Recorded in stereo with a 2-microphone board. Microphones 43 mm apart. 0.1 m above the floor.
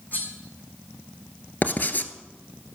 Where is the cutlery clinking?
45° left (ahead or behind), 2.5 m.